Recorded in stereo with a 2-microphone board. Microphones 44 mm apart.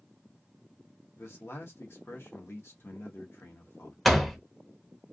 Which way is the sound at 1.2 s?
65° left (ahead or behind).